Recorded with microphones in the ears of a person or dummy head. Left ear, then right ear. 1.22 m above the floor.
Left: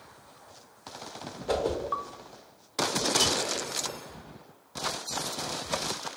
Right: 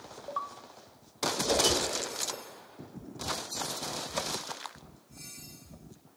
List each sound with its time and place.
1.5 s a whoosh: centre (ahead or behind), 0.6 m